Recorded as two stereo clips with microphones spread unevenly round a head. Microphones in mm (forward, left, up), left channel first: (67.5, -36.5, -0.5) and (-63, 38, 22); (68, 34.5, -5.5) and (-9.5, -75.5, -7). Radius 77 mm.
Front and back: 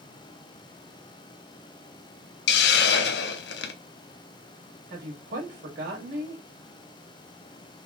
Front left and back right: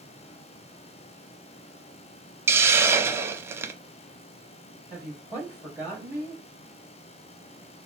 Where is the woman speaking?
160° left, 1.8 m.